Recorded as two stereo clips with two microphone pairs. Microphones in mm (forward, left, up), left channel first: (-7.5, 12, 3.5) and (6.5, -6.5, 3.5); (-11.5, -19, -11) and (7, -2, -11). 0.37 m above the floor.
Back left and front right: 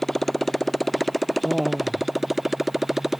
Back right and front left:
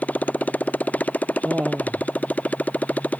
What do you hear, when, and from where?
0.0 s a motorcycle: 145° right; by 3.2 s 125° right
1.4 s laughter: 25° left